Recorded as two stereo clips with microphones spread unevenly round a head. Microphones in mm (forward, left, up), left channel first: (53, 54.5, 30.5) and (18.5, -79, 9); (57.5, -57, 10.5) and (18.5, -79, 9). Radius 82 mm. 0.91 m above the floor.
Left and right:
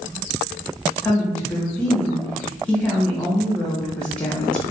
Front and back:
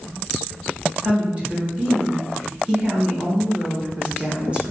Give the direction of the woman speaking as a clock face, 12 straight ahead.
6 o'clock.